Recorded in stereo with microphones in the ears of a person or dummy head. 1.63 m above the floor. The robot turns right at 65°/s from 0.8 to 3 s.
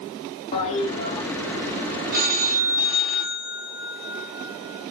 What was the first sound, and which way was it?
A toilet flushing, 145° left.